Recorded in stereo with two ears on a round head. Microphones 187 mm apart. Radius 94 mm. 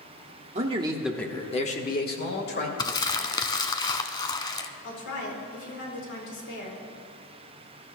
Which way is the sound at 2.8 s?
20° left (ahead or behind).